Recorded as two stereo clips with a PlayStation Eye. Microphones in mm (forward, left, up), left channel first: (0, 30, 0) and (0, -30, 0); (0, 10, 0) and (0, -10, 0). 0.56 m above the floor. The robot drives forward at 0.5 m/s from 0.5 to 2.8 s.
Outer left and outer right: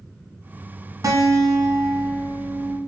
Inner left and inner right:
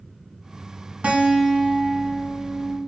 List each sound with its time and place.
1.0 s a guitar: 75° right (ahead or behind), 1.2 m; by 2.8 s 60° right (ahead or behind), 1.3 m